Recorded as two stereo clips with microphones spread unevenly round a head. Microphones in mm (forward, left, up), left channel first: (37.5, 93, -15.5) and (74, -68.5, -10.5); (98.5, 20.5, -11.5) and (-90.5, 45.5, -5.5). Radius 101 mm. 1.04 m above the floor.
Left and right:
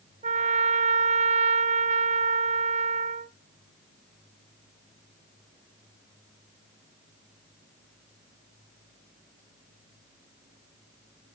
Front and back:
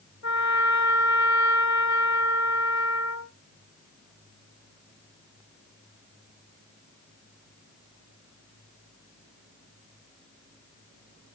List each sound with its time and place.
0.2 s a trumpet: 35° right, 1.7 m